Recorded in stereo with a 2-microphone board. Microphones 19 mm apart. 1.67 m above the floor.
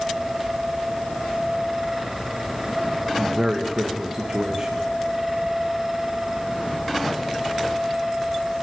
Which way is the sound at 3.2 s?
30° right (ahead or behind).